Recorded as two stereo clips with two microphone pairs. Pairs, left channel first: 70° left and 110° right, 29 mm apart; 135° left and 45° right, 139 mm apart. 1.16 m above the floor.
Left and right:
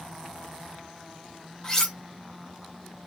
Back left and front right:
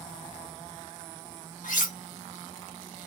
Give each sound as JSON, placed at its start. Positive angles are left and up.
{"t": 1.6, "sound": "cutlery clinking", "azimuth_deg": 145, "distance_m": 1.0}